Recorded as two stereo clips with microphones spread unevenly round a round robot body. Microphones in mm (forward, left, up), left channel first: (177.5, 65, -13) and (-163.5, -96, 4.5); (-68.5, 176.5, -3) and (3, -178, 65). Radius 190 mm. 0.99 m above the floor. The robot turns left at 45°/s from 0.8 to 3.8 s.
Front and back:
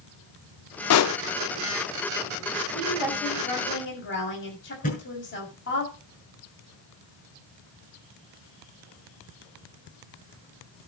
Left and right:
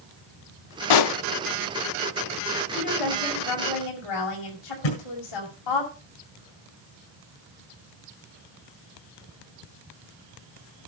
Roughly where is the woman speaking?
Behind left.